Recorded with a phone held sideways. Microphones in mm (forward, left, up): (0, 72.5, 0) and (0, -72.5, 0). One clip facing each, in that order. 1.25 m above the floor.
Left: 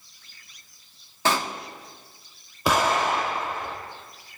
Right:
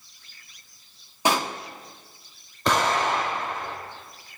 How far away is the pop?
About 1.2 m.